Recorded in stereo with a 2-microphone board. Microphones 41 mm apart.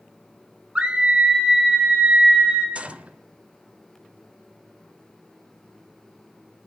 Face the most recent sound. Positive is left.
turn(degrees=-30)  # may be behind; listen again after turning